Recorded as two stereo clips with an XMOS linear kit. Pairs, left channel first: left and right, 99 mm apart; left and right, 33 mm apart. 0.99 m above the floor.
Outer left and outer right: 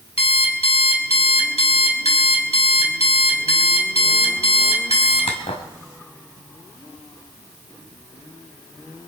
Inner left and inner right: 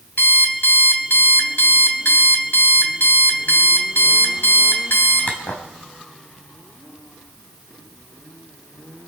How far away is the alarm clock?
About 3 m.